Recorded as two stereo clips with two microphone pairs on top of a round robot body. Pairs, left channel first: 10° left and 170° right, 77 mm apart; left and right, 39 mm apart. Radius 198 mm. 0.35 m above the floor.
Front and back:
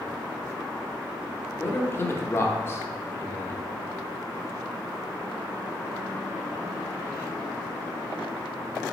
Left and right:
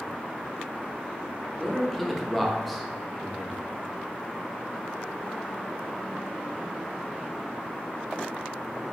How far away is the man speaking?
About 1.0 m.